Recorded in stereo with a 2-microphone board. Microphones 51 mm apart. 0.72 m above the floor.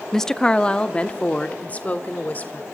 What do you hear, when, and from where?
0.1 s a woman speaking: 10° left (ahead or behind), 0.6 m; by 2.6 s 30° left (ahead or behind), 1.9 m